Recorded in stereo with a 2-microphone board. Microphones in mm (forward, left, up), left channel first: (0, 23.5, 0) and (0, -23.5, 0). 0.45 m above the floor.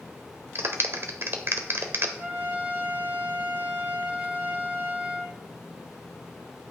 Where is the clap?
50° right (ahead or behind), 1.2 m.